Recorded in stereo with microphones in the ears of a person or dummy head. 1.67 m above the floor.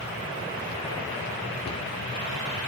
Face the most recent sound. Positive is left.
turn(degrees=50)  # may be behind; listen again after turning